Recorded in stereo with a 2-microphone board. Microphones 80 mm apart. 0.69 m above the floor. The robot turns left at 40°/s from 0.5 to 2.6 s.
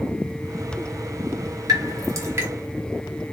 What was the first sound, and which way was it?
Dripping, 50° right (ahead or behind).